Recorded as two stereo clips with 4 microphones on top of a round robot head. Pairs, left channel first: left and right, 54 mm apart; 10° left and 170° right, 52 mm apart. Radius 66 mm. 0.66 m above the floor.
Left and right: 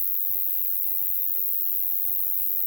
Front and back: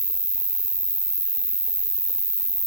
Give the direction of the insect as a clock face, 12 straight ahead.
7 o'clock.